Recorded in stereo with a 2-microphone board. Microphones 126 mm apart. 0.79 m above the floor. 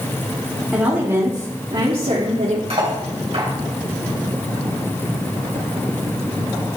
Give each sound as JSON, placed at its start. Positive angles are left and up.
{"t": 0.7, "sound": "a woman speaking", "side_deg": -5, "distance_m": 1.7}
{"t": 2.7, "sound": "cutlery clinking", "side_deg": -55, "distance_m": 2.0}